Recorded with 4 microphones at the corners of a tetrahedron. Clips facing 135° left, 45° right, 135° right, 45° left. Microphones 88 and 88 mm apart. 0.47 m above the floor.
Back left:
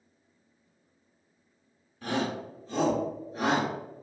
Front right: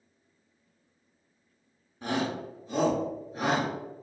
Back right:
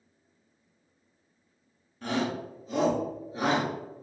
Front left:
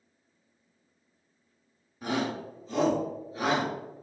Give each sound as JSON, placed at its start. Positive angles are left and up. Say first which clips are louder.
{"t": 2.0, "sound": "a shout", "louder": "even, even", "azimuth_deg": -20, "distance_m": 1.3}